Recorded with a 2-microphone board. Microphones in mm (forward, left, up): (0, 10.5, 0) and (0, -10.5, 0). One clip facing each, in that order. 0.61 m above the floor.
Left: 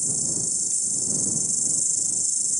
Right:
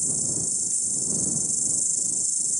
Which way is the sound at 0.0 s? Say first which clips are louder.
Left 1 dB; 15° left (ahead or behind).